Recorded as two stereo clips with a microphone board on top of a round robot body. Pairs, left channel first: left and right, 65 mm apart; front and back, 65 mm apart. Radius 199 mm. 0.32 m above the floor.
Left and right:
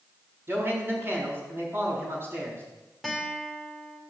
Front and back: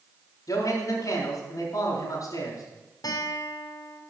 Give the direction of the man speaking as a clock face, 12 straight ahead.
1 o'clock.